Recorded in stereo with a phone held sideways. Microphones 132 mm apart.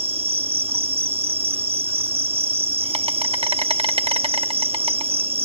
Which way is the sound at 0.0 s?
45° right (ahead or behind).